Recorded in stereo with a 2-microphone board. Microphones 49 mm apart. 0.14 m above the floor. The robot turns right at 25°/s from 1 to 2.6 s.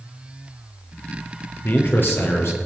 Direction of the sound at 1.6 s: 45° left (ahead or behind).